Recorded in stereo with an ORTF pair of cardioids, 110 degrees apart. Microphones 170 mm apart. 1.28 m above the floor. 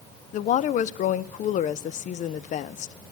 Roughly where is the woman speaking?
Ahead left.